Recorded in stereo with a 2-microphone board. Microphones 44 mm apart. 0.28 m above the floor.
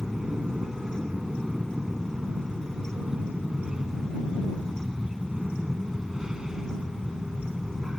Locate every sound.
0.0 s an aircraft: 15° right (ahead or behind)